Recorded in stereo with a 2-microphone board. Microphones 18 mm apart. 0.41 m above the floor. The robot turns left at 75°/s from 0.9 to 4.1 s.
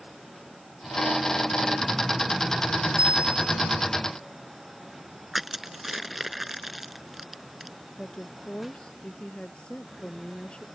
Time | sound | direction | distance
3.0 | a bicycle bell | 90° right | ?
5.3 | crushing | 20° right (ahead or behind) | ?
8.0 | a woman speaking | 80° left | ?